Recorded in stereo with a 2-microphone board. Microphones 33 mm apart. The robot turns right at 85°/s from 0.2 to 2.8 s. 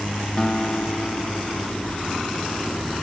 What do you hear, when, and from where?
0.4 s a guitar: 20° left, 0.6 m; by 1.8 s 140° left, 0.6 m